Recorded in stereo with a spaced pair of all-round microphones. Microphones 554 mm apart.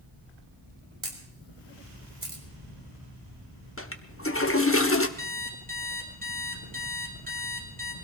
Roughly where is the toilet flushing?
Left.